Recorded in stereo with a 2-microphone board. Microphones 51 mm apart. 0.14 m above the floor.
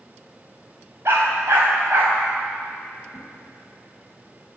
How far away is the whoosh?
About 3.5 m.